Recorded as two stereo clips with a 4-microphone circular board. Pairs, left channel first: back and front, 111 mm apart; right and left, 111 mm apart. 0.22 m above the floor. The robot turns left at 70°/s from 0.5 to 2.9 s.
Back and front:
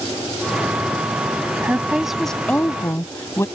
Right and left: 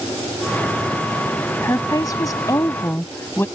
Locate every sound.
1.6 s a woman speaking: 50° right; by 3.5 s 140° right